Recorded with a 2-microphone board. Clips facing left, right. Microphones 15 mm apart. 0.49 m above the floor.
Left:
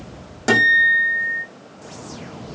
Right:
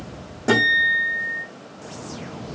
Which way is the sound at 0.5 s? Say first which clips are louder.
Left 3 dB; 70° left (ahead or behind).